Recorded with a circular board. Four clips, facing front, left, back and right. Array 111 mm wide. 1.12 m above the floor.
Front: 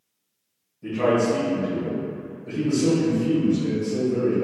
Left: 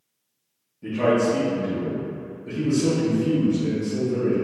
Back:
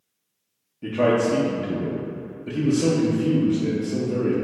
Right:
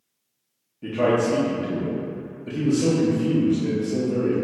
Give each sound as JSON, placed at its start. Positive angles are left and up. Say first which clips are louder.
{"t": 0.8, "sound": "a man speaking", "louder": "even, back 1 dB", "azimuth_deg": -150, "distance_m": 0.7}